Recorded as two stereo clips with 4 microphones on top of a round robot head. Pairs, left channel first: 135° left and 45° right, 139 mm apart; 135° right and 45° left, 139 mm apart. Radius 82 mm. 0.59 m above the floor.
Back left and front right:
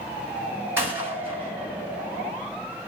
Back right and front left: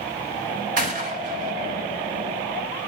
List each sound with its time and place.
0.8 s a gunshot: 30° left, 3.5 m